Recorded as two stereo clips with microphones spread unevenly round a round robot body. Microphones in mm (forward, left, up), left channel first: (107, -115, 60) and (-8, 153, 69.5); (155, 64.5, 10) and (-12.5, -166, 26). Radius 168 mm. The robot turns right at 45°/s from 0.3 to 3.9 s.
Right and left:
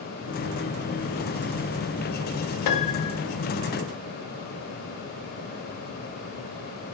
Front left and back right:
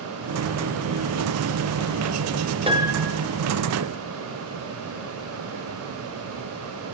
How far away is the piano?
About 0.7 m.